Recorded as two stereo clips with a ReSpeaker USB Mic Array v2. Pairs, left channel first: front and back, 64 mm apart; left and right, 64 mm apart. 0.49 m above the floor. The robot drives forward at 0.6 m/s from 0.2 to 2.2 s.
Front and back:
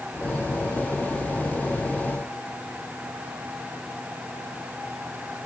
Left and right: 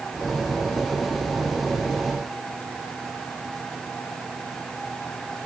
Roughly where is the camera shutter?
No camera shutter in this recording.